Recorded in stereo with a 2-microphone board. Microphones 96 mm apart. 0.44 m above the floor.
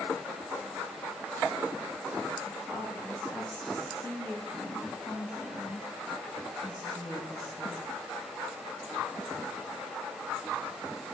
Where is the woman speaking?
5° left (ahead or behind), 4 m.